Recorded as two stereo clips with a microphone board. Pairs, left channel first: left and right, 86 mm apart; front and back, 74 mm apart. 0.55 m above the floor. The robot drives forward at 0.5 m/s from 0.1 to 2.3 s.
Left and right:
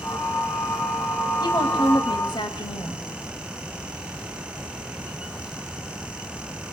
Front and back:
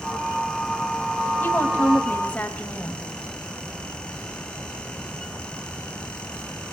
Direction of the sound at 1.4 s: 60° left.